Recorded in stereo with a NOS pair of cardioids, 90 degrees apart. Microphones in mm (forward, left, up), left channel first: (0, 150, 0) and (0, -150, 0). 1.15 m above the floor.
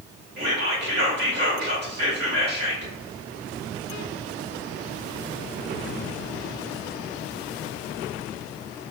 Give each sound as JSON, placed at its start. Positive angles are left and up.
{"t": 0.4, "sound": "whispering", "azimuth_deg": -35, "distance_m": 2.0}